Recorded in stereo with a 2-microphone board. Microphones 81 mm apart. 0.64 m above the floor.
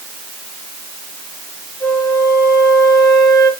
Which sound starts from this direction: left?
A flute, at 1.8 s.